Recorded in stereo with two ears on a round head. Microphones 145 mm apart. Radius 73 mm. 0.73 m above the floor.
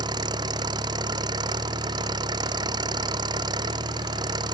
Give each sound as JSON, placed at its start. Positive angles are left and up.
{"t": 0.0, "sound": "an engine running", "side_deg": -25}